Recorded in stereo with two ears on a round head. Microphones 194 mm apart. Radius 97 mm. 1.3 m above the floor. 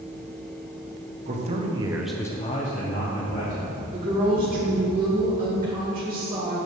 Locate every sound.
1.3 s a man speaking: 35° right (ahead or behind), 1.0 m; by 3.6 s 40° left (ahead or behind), 1.6 m
3.9 s a woman speaking: 30° right (ahead or behind), 1.3 m